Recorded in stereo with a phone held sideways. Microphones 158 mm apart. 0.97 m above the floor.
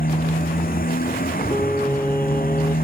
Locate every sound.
0.0 s a motorcycle: 65° left (ahead or behind)
1.5 s singing: 15° left (ahead or behind)